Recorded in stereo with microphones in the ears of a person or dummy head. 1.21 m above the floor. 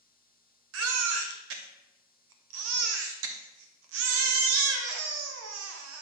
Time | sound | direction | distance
0.7 | a baby crying | 75° right (ahead or behind) | 0.7 m